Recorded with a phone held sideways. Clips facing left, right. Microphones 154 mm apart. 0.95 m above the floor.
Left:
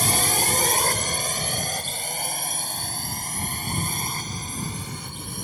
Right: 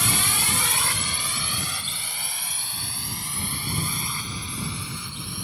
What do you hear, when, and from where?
0.0 s a drone: 45° left (ahead or behind)